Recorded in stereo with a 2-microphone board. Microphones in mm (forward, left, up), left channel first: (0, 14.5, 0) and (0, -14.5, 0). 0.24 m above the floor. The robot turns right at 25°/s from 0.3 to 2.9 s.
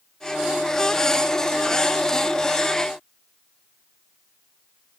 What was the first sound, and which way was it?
Only background noise.